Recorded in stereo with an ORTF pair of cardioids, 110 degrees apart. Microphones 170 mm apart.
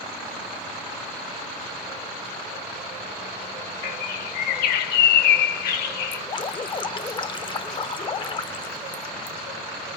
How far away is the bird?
About 0.8 m.